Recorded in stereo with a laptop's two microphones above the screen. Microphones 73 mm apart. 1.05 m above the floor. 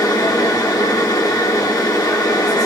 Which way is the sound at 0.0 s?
60° left (ahead or behind).